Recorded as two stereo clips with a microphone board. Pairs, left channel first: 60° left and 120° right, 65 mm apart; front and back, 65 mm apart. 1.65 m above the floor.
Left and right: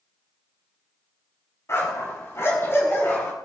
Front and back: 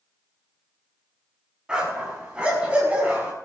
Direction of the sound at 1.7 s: 105° left.